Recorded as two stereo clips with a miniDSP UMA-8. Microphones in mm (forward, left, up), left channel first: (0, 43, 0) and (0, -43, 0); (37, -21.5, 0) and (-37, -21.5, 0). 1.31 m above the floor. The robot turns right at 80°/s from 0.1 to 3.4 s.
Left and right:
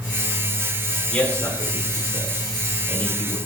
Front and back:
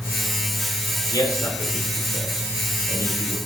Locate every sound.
1.1 s a man speaking: 10° left, 3 m; by 3.4 s 170° right, 3 m